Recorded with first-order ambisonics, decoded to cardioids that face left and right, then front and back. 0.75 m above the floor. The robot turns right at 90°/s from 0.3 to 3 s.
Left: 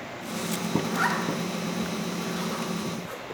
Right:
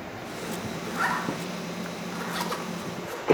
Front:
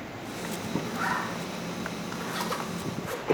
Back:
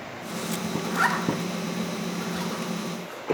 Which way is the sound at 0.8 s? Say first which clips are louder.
Right 1 dB, back 7 dB; 155° left.